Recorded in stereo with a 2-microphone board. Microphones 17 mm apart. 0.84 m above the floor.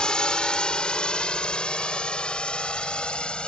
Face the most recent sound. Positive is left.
turn(degrees=75)  # may be behind; listen again after turning